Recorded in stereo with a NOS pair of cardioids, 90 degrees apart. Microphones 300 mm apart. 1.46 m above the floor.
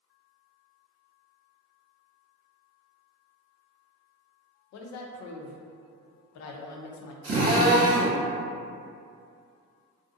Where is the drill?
40° right, 1.4 m.